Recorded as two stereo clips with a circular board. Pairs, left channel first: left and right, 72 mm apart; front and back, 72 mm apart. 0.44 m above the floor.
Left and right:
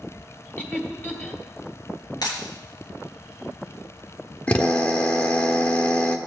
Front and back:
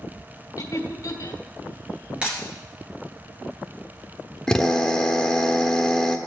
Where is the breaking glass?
105° left, 3 m.